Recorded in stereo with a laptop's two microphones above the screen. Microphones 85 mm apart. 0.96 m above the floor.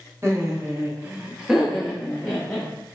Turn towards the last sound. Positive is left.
turn(degrees=15)  # may be behind; listen again after turning